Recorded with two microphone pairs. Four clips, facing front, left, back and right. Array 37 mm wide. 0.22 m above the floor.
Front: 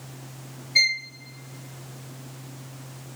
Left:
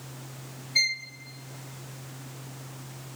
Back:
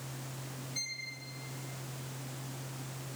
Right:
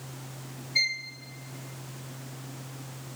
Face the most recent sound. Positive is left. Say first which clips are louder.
# left 1 dB, front 20 dB
turn(degrees=5)